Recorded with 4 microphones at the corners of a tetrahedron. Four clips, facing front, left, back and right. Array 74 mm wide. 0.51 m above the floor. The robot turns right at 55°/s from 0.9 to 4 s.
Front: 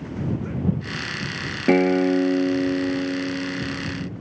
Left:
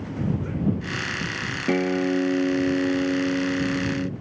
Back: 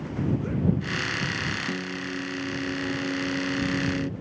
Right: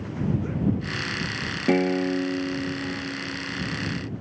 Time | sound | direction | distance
1.7 | a guitar | 10° right | ?